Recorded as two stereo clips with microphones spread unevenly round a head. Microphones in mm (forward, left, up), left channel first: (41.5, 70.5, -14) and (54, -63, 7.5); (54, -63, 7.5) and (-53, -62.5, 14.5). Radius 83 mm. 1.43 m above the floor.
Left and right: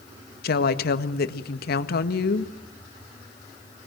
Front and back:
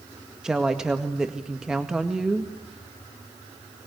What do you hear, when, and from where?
0.4 s a woman speaking: 95° left, 1.7 m